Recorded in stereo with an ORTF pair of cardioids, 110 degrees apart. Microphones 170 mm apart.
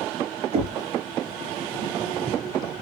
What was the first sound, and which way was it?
Knocking, 40° right.